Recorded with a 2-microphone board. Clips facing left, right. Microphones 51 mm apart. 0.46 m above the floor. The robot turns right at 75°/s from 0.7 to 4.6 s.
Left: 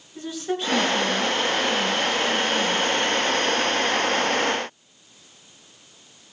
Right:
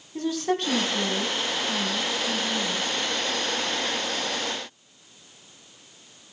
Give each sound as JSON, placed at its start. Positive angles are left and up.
{"t": 0.1, "sound": "a woman speaking", "azimuth_deg": -105, "distance_m": 4.0}